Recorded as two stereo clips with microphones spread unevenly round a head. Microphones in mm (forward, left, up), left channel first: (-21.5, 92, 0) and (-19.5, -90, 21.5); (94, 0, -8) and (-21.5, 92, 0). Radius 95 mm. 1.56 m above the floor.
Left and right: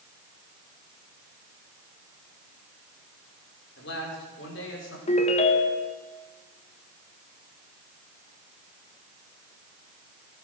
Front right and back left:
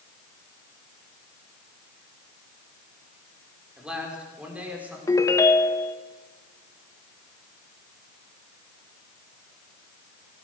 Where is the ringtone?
30° left, 1.2 m.